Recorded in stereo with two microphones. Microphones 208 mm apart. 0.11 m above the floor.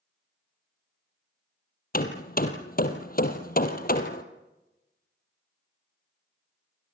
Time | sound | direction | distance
1.9 | hammering | 45° left (ahead or behind) | 2 m